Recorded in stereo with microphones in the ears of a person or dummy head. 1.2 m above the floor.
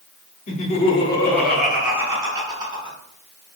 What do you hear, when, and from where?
0.5 s laughter: 35° left (ahead or behind), 0.7 m; by 3.0 s 30° right (ahead or behind), 1.1 m